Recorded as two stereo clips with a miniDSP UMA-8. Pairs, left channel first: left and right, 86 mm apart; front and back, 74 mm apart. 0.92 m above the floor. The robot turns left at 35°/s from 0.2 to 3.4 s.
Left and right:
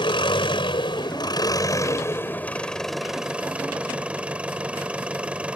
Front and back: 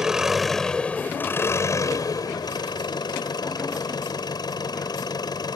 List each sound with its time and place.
0.0 s an engine running: 95° left; by 5.6 s 15° right